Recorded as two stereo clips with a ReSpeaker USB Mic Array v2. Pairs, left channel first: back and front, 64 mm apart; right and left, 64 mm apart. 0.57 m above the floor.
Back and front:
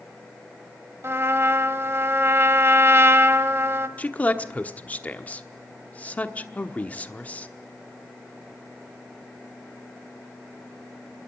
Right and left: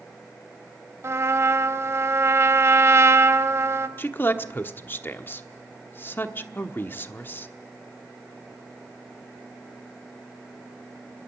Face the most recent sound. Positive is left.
turn(degrees=-125)